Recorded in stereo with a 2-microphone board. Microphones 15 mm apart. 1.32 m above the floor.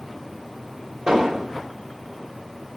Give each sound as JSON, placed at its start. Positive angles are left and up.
{"t": 1.1, "sound": "an explosion", "side_deg": -80, "distance_m": 1.1}